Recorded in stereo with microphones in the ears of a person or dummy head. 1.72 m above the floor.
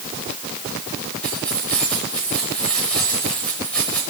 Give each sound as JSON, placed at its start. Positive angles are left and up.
{"t": 1.2, "sound": "keys jangling", "side_deg": 10, "distance_m": 6.0}